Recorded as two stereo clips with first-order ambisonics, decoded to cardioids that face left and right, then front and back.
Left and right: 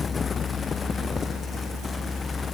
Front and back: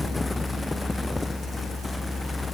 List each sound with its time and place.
Only background noise.